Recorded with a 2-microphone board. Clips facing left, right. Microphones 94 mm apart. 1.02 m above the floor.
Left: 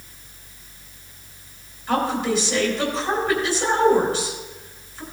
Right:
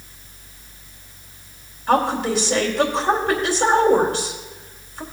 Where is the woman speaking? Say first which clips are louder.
Right 3 dB; 65° right (ahead or behind), 2.5 m.